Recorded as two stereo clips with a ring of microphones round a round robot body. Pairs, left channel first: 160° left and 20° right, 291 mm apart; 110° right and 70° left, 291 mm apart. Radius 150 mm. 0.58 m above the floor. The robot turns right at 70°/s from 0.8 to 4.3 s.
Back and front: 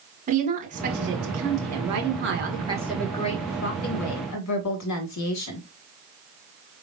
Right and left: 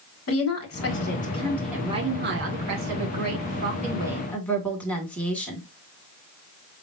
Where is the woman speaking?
85° right, 1.9 m; by 5.6 s 160° left, 1.9 m.